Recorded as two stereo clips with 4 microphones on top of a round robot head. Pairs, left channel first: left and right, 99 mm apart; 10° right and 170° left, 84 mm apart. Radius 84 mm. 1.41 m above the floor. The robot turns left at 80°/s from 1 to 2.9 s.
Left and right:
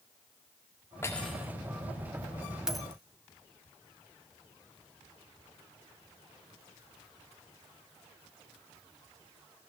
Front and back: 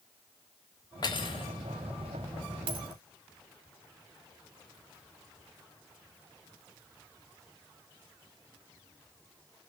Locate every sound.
1.0 s cutlery clinking: 20° left, 1.8 m; by 1.5 s 20° right, 1.8 m
2.7 s a dropped coin: 170° right, 1.6 m; by 3.0 s 170° left, 1.6 m